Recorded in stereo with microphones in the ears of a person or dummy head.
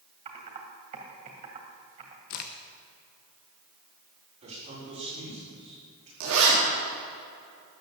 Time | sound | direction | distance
0.2 | typing on a keyboard | 35° right (ahead or behind) | 2.5 m
2.3 | a crack | 45° left (ahead or behind) | 1.0 m
4.4 | a man speaking | 35° right (ahead or behind) | 7 m
6.2 | a zipper | 70° right (ahead or behind) | 4.5 m